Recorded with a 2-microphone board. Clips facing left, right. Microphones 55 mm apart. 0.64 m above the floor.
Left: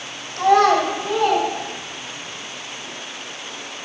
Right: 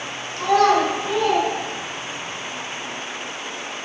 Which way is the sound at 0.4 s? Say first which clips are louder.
Left 2 dB; 60° left (ahead or behind).